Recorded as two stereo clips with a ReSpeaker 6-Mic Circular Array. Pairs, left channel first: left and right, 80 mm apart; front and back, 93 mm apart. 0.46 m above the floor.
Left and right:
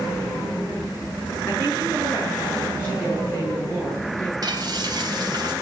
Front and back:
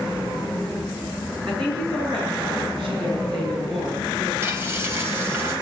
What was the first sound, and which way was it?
A woman speaking, 150° left.